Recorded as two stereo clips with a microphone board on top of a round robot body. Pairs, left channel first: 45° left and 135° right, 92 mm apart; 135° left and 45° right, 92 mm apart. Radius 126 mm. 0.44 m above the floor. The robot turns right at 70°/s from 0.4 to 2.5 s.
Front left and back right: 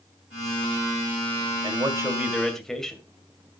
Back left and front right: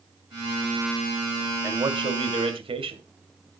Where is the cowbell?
No cowbell in this recording.